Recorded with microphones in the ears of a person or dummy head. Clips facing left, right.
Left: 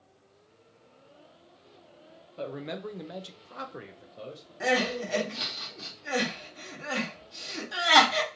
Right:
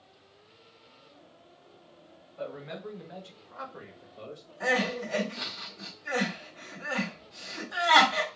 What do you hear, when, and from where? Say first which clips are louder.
2.4 s a man speaking: left 3 dB; 45° left (ahead or behind), 0.7 m; by 5.6 s 5° left (ahead or behind), 1.3 m
4.6 s crying: left 2 dB; 40° left (ahead or behind), 1.5 m